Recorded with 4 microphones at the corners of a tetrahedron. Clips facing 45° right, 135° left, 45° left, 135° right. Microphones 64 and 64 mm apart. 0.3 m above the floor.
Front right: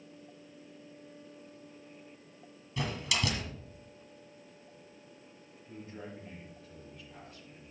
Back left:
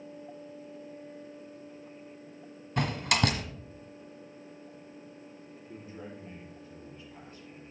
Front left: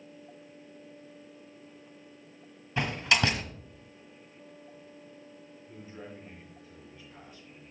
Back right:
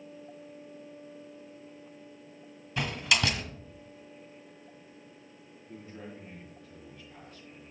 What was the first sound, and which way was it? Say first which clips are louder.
A door slam: back left 6 dB, front left 2 dB; 105° left.